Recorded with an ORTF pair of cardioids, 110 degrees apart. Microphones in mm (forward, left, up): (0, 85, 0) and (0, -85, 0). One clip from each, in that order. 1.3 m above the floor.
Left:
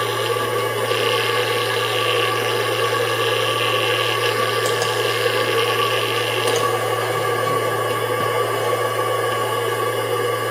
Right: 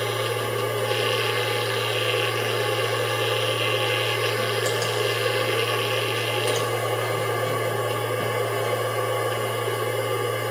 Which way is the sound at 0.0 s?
25° left.